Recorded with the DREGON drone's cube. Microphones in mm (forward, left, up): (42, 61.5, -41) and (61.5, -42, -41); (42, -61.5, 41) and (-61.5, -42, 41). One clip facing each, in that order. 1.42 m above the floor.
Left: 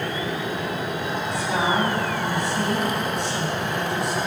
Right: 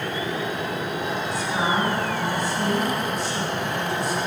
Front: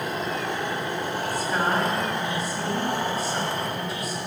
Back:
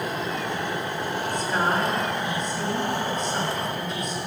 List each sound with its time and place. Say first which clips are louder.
1.3 s a woman speaking: left 2 dB, even; 75° left, 8 m